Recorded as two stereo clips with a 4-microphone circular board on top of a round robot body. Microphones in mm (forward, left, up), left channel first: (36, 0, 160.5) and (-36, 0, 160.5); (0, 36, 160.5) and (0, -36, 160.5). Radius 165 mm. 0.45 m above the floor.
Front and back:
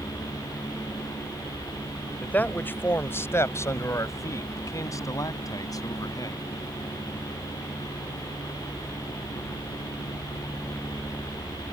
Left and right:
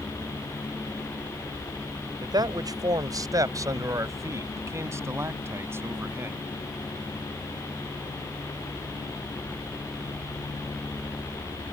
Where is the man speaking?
70° right; by 6.5 s 30° right.